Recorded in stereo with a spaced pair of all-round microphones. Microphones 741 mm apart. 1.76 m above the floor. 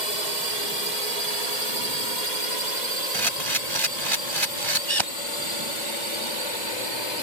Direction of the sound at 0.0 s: 65° right (ahead or behind).